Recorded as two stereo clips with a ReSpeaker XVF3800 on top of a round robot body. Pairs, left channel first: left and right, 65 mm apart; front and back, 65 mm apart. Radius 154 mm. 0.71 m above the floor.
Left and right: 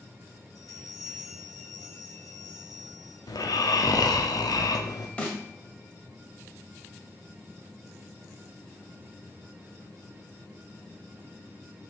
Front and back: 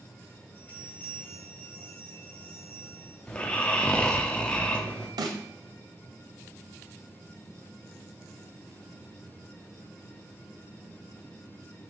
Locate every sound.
0.6 s a bell: 65° left, 2 m
3.3 s snoring: 75° left, 1.3 m
5.2 s a snare drum: 165° left, 1.2 m